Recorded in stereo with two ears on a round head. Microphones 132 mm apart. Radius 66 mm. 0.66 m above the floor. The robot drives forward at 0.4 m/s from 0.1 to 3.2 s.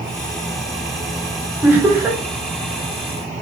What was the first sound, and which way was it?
Laughter, 15° right (ahead or behind).